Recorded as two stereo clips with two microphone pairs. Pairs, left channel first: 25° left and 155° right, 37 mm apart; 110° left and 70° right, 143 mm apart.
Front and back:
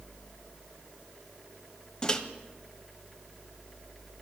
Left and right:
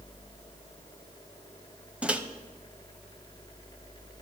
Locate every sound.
2.0 s a microwave: 5° right, 0.8 m